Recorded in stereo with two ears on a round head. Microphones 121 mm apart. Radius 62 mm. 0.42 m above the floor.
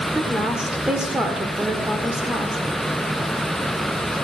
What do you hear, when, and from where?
0.1 s a woman speaking: 5° right (ahead or behind), 1.4 m